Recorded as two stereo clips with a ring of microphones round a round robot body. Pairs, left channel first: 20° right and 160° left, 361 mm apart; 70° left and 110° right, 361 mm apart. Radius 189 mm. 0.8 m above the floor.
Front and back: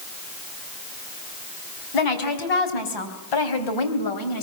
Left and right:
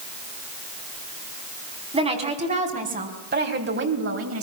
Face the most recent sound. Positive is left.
turn(degrees=-60)